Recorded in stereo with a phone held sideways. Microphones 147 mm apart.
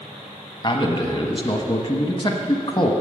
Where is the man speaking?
35° left (ahead or behind), 1.0 m.